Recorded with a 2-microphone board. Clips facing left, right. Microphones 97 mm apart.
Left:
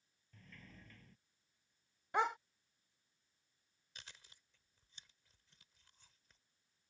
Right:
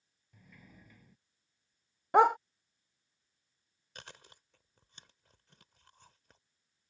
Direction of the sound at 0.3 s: 10° right (ahead or behind).